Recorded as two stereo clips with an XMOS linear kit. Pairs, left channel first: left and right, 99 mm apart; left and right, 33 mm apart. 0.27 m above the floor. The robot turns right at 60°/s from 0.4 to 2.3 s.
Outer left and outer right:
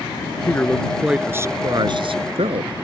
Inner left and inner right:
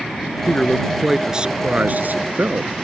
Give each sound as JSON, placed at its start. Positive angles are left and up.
{"t": 0.5, "sound": "a man speaking", "azimuth_deg": 150}